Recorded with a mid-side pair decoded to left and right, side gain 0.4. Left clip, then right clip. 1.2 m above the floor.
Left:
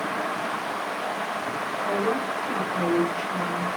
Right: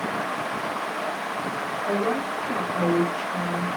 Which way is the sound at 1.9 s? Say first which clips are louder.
Even; 60° right.